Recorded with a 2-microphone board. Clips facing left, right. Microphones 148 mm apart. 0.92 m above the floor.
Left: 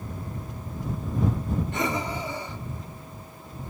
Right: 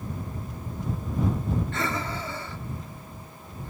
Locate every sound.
1.7 s breathing: 20° left (ahead or behind)